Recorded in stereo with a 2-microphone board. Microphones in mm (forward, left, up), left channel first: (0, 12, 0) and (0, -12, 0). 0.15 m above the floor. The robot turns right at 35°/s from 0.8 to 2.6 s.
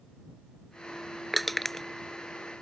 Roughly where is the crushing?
Centre.